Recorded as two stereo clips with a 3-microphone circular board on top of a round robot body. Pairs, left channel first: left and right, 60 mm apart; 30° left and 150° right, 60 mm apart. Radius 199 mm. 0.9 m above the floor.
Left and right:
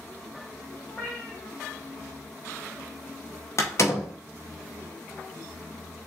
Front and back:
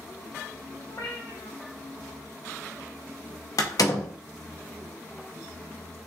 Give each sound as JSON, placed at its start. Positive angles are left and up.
{"t": 0.9, "sound": "a cat meowing", "azimuth_deg": 30, "distance_m": 1.4}
{"t": 3.6, "sound": "a door slam", "azimuth_deg": 50, "distance_m": 1.1}